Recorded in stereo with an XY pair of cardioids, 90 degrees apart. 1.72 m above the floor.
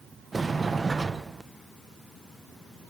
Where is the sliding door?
25° right, 1.5 m.